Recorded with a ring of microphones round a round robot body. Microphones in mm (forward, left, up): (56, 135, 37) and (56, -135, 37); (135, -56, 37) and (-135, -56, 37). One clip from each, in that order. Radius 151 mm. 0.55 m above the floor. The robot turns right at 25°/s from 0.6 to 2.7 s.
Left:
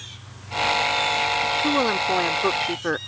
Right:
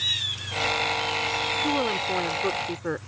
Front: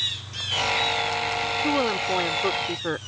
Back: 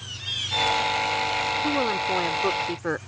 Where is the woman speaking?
70° left; by 3.0 s 95° left.